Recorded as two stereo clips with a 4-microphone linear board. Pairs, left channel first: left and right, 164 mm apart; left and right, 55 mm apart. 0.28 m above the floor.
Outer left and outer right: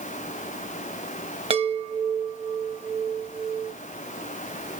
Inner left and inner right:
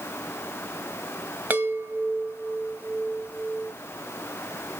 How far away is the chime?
About 1.1 m.